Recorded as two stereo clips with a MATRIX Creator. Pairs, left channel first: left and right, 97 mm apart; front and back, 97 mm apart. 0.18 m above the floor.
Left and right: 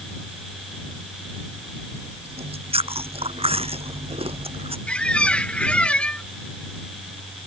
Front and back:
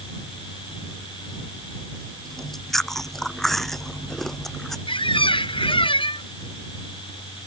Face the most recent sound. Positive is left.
turn(degrees=15)